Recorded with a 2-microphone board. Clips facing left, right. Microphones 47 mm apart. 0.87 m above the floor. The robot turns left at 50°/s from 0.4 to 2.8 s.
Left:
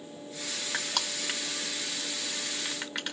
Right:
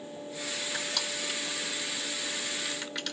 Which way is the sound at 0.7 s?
50° left (ahead or behind).